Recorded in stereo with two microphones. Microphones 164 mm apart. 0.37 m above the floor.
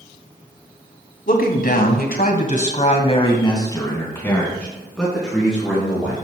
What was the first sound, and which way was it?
A man speaking, 65° left (ahead or behind).